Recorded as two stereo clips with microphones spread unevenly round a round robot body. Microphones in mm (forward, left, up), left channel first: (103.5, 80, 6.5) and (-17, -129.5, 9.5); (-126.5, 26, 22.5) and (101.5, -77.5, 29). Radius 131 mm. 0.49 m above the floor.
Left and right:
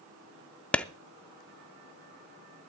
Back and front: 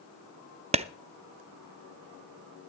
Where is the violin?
No violin in this recording.